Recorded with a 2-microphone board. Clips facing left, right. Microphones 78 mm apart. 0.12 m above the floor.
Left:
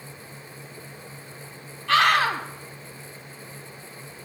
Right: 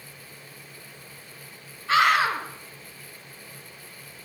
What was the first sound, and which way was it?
A scream, 65° left (ahead or behind).